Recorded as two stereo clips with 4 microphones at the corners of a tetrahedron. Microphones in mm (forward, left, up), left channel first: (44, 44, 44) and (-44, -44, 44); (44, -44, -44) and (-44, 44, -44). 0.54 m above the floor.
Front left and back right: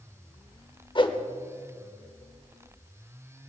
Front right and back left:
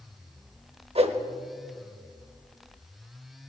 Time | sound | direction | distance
0.9 | a whoosh | 95° left | 0.9 m